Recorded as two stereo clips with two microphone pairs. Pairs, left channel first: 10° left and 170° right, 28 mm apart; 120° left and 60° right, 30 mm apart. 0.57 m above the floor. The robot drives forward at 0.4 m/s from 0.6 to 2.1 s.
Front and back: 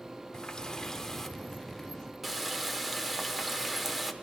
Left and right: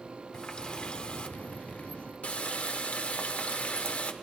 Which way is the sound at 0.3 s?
75° left.